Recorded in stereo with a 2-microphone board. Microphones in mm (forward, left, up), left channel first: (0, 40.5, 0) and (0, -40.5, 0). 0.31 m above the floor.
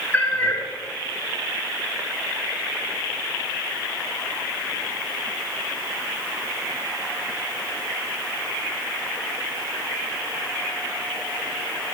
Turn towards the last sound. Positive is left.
turn(degrees=20)  # may be behind; listen again after turning